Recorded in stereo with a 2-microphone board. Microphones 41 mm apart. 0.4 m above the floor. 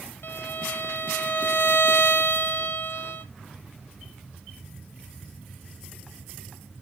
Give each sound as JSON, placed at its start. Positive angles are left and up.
{"t": 0.2, "sound": "a violin", "side_deg": 70, "distance_m": 1.6}